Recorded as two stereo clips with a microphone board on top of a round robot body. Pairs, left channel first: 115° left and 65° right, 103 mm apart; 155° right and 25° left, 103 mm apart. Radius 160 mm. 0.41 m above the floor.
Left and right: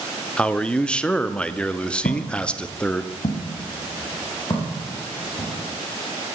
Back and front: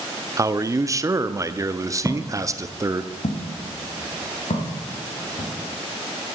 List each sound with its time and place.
0.4 s a man speaking: 40° left, 0.8 m
2.0 s footsteps: 105° left, 0.8 m; by 5.5 s straight behind, 5 m